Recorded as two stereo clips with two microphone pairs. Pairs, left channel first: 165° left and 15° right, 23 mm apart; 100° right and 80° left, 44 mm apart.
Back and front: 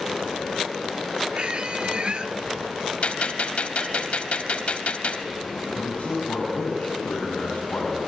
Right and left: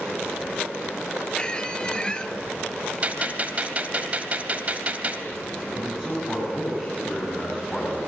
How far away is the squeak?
About 1.2 m.